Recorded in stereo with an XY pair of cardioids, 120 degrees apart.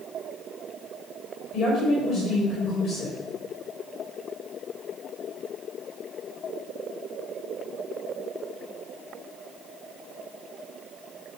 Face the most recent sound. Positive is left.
turn(degrees=45)